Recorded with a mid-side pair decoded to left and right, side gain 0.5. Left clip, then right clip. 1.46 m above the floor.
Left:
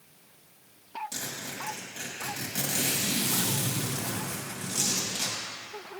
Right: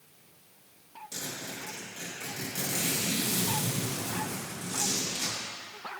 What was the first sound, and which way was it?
A zipper, 40° left.